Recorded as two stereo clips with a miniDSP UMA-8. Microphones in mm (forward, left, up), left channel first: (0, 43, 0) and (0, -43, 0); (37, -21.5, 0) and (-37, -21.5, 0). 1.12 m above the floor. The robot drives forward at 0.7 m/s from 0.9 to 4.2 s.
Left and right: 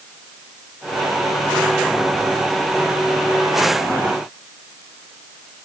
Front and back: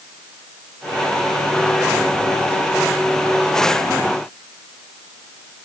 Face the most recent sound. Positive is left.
No sound to turn to.